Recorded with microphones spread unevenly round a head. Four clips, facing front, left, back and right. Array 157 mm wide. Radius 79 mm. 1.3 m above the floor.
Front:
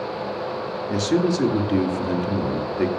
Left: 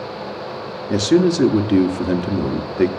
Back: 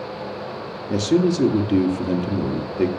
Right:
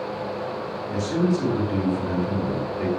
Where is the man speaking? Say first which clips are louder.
Left 8 dB, back 3 dB; 125° left, 1.0 m.